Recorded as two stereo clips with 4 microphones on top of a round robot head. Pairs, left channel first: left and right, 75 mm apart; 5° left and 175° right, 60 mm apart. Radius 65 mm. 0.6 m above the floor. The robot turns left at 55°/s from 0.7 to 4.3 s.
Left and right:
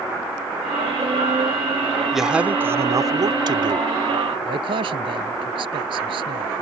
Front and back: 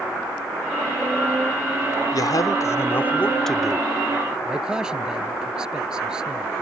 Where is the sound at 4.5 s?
90° right.